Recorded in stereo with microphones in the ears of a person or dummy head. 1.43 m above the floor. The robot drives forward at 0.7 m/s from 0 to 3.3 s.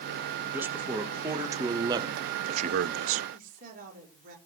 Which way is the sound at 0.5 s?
15° right (ahead or behind).